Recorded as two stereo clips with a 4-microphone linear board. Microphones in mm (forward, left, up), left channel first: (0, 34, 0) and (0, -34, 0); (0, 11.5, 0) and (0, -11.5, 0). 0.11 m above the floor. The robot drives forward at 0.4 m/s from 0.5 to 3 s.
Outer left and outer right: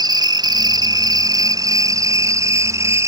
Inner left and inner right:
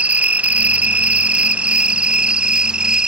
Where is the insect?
75° right (ahead or behind); by 3.1 s 45° right (ahead or behind).